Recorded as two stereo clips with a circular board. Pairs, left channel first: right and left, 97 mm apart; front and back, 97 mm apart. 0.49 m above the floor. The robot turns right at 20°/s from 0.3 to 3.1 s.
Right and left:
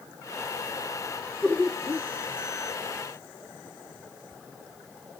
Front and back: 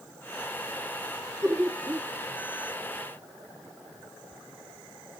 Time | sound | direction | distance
1.4 | laughter | 160° right | 1.0 m